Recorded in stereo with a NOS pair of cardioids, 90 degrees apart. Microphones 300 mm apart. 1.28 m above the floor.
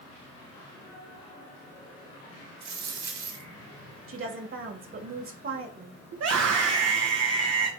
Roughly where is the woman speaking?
Ahead right.